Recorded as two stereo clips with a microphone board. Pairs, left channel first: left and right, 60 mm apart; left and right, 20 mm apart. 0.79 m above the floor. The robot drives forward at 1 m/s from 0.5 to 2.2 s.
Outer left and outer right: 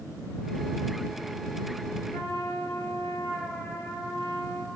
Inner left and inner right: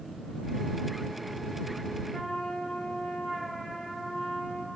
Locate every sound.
2.1 s a trumpet: 70° left (ahead or behind), 9 m; by 4.7 s 65° left (ahead or behind), 9 m